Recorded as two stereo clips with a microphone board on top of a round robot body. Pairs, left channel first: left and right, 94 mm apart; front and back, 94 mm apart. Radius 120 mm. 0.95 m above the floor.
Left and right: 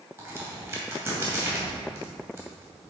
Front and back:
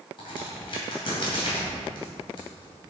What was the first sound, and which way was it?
A crack, 30° right.